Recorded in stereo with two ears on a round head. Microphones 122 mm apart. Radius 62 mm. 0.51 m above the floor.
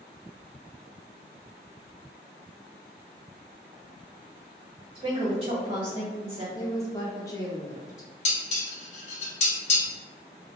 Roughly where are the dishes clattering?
Left.